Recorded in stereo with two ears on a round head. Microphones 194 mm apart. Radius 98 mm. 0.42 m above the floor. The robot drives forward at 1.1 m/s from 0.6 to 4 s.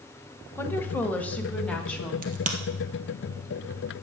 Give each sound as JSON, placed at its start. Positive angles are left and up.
{"t": 0.6, "sound": "a woman speaking", "side_deg": 10, "distance_m": 1.3}
{"t": 2.2, "sound": "a crack", "side_deg": -40, "distance_m": 2.0}